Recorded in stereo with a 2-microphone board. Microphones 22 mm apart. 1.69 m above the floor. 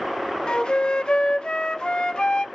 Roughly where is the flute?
Left.